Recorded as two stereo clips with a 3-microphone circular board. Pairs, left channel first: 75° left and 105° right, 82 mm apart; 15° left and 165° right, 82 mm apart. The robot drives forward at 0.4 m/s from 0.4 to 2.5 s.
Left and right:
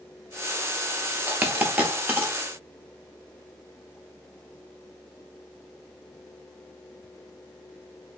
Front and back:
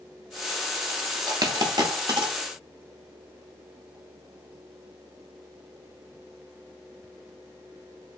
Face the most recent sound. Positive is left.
turn(degrees=-175)